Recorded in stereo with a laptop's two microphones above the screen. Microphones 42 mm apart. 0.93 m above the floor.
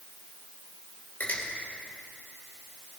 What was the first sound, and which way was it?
A finger snap, 45° left (ahead or behind).